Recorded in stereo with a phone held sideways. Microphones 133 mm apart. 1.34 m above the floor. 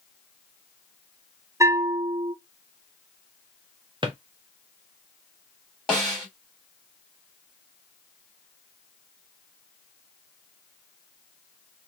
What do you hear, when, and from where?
1.6 s a bell: 25° right (ahead or behind), 0.6 m
4.0 s a drawer: 40° right (ahead or behind), 0.7 m
5.9 s a snare drum: 5° left (ahead or behind), 1.4 m